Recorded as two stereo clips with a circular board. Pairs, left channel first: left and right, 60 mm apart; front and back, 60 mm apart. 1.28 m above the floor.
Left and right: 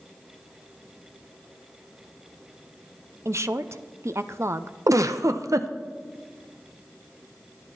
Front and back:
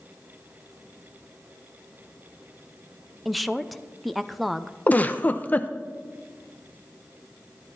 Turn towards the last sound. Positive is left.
turn(degrees=-65)